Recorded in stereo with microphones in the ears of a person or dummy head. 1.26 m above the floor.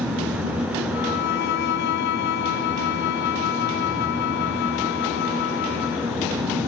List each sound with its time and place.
0.9 s a violin: 60° left (ahead or behind)